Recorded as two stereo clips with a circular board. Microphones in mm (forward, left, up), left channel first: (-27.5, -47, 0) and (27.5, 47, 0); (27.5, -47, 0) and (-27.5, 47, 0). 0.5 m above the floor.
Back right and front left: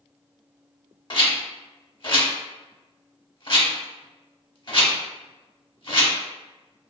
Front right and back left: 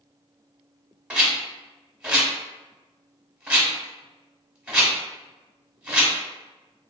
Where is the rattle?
160° right, 0.8 m.